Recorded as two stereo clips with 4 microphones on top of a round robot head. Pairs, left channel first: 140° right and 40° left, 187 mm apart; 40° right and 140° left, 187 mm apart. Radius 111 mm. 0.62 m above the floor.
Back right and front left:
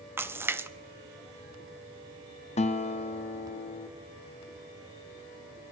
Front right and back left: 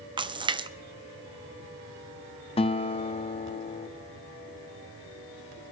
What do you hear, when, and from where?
0.2 s a splash: 110° left, 0.7 m
2.6 s a guitar: 95° right, 1.0 m